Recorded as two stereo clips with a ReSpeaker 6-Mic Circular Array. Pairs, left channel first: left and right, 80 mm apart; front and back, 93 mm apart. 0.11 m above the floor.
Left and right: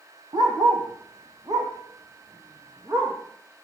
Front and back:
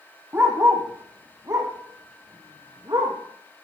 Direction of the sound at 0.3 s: 115° right.